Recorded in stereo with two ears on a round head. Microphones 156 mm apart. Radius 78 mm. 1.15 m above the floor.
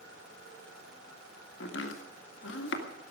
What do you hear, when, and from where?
1.6 s chopping: 75° left (ahead or behind), 2.0 m